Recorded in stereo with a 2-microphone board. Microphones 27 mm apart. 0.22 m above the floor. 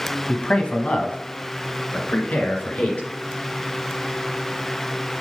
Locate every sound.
0.3 s a man speaking: 35° left (ahead or behind), 1.1 m; by 3.1 s 55° left (ahead or behind), 3 m